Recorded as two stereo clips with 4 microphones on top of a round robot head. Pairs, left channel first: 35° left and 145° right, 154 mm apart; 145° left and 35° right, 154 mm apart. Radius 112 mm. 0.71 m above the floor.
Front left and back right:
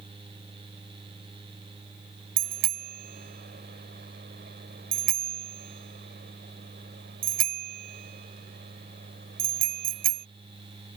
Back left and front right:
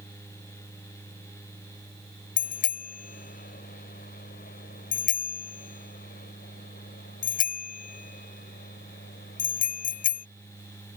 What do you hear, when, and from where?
2.4 s a bicycle bell: 175° right